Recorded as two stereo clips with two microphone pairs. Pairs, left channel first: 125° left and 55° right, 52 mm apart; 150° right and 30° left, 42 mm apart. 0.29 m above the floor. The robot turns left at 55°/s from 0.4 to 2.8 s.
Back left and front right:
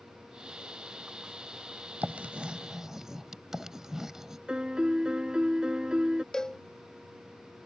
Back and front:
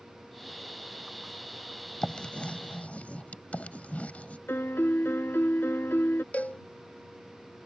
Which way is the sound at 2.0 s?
85° right.